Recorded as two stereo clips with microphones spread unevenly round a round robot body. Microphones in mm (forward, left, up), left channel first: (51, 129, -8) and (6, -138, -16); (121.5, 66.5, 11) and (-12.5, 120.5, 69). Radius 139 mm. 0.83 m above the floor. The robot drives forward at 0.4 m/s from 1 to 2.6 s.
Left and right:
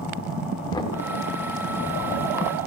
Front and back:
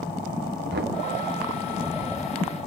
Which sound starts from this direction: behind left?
Knocking, at 0.7 s.